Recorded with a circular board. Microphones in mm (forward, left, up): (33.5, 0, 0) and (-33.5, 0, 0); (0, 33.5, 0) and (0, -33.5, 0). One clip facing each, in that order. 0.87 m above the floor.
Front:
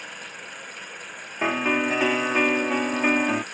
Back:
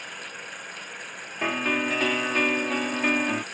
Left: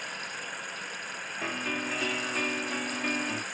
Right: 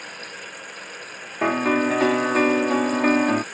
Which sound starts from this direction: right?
A piano, at 1.4 s.